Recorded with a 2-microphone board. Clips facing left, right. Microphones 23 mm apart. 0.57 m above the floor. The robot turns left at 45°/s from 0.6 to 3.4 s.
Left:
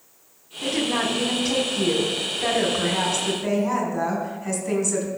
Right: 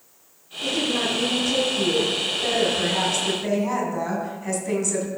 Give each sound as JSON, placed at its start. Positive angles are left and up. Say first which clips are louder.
{"t": 0.6, "sound": "a woman speaking", "louder": "even", "azimuth_deg": 125, "distance_m": 4.0}